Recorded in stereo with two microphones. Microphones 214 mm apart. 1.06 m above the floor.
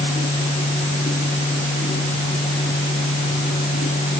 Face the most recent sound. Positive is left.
No sound to turn to.